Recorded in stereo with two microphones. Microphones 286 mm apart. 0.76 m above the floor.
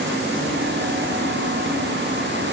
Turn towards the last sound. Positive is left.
No sound to turn to.